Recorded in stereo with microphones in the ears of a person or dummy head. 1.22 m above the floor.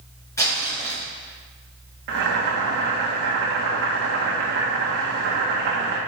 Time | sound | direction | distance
0.4 | crumpling | 20° left (ahead or behind) | 2.5 m
2.1 | boiling | 50° right (ahead or behind) | 1.2 m